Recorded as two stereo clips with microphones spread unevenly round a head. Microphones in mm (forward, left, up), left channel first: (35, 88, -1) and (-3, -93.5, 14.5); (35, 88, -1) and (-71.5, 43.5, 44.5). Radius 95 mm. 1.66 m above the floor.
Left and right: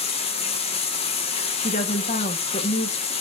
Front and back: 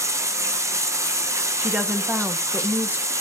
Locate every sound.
0.0 s running water: 140° left, 1.7 m
1.6 s a woman speaking: 135° left, 1.3 m